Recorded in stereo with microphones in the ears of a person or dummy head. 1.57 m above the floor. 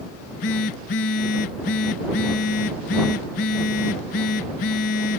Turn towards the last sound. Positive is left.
turn(degrees=40)  # may be behind; listen again after turning